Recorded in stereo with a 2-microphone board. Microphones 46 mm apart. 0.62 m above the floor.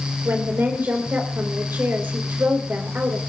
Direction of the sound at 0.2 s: 55° right (ahead or behind).